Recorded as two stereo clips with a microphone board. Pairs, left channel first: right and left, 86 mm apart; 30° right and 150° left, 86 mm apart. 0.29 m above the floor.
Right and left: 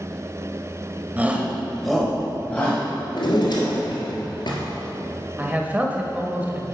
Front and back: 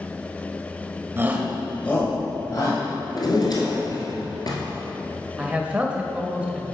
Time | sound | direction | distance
1.2 | a shout | 135° left | 1.0 m
3.1 | a drawer | 65° right | 1.6 m
5.4 | a man speaking | 115° left | 0.9 m